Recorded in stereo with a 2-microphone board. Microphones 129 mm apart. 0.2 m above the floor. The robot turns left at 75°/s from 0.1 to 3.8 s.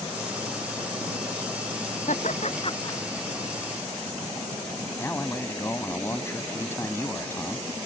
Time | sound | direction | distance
2.1 | laughter | 80° left | ?
5.0 | a man speaking | 20° left (ahead or behind) | ?